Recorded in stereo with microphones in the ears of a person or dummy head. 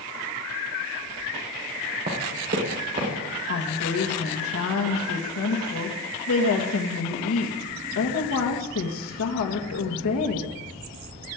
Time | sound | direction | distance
2.1 | running footsteps | 40° right (ahead or behind) | 4 m
3.5 | a woman speaking | 70° left (ahead or behind) | 2.0 m